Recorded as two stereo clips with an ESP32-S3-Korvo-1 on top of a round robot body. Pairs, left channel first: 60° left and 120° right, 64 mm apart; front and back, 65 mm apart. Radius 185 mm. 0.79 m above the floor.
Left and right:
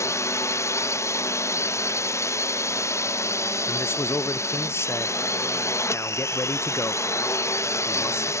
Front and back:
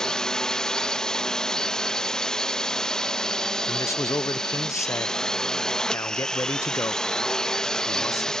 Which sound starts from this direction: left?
A drone, at 0.0 s.